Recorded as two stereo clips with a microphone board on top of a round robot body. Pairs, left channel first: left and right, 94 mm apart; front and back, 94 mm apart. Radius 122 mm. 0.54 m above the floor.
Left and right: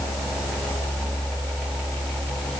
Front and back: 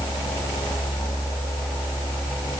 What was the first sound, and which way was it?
Only background noise.